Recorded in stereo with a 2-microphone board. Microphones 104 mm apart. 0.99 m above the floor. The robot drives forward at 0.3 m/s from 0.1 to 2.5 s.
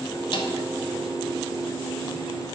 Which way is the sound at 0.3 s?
50° left (ahead or behind).